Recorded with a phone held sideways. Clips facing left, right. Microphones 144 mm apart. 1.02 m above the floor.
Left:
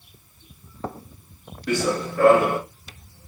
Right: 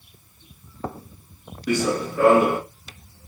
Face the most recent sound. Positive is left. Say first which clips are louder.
# right 1 dB
turn(degrees=-15)  # may be behind; listen again after turning